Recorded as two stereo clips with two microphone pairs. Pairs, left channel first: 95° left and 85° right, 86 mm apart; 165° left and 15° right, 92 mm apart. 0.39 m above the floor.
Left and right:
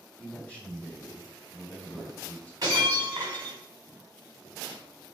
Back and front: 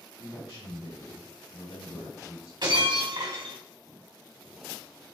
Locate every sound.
0.2 s a man speaking: 165° left, 1.8 m
2.6 s breaking glass: 45° right, 2 m